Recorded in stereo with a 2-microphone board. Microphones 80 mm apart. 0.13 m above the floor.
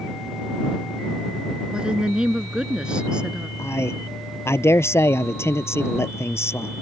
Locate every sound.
1.7 s a woman speaking: 10° right (ahead or behind)
3.6 s a man speaking: 35° left (ahead or behind)